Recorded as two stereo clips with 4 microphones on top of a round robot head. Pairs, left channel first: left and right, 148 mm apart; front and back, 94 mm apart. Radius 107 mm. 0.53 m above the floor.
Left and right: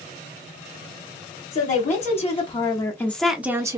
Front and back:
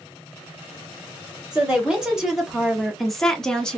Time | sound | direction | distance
1.5 | a woman speaking | 100° left | 1.1 m